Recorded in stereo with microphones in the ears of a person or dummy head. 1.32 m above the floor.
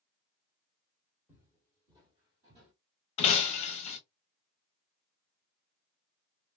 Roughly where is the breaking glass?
Left.